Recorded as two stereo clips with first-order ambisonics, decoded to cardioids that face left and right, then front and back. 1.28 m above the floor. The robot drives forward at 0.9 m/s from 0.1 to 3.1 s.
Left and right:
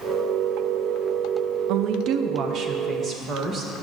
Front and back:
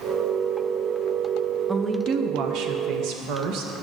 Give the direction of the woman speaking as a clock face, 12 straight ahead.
3 o'clock.